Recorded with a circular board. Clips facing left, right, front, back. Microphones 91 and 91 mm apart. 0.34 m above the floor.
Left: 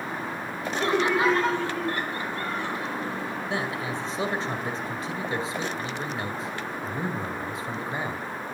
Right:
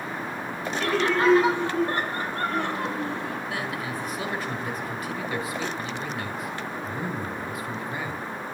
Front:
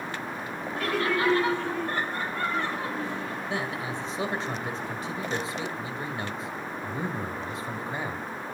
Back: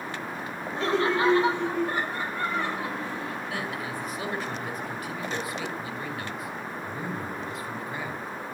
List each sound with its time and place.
0.8 s laughter: 135° left, 1.7 m; by 3.4 s 85° right, 3.5 m
3.5 s a man speaking: 45° left, 1.9 m